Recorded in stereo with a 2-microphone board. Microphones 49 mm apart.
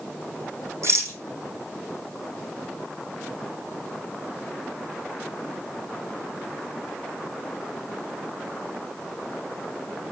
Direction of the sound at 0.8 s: 65° right (ahead or behind).